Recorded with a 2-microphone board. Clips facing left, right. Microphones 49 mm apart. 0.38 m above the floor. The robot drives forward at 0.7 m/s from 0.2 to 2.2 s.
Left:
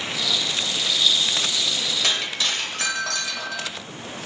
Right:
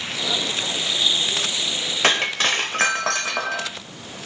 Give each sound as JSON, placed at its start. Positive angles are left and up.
{"t": 2.0, "sound": "breaking glass", "side_deg": -45, "distance_m": 1.0}